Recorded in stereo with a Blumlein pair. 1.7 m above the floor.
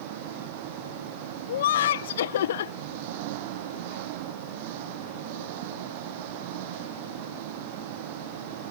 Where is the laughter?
60° left.